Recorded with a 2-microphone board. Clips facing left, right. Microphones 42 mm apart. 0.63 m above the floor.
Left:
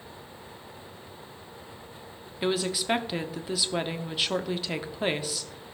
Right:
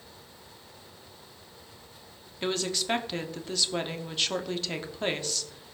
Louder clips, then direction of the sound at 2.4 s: Left 3 dB; 5° left (ahead or behind).